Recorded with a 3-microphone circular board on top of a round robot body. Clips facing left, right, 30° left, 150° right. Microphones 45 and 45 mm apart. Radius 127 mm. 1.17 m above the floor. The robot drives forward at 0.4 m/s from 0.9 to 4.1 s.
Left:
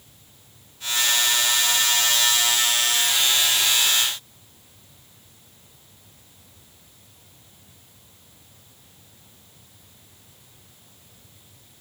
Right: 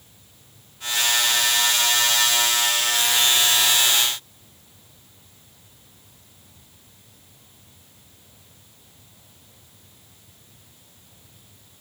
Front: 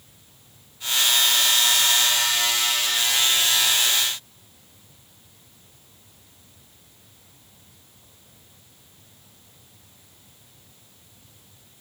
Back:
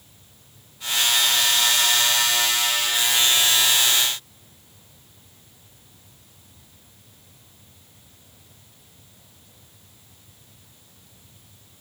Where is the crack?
I don't hear a crack.